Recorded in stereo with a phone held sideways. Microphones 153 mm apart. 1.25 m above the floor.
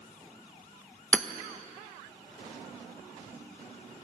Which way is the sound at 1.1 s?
10° left (ahead or behind).